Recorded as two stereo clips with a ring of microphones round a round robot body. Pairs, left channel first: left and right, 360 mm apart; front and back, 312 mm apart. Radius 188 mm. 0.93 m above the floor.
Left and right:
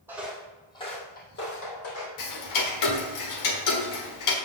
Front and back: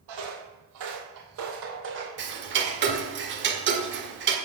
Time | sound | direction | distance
0.1 | footsteps | 175° right | 1.9 m
2.2 | ticking | 125° left | 1.4 m